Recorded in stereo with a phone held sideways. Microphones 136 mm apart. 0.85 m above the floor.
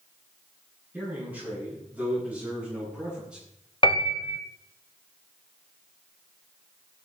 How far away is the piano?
About 0.9 m.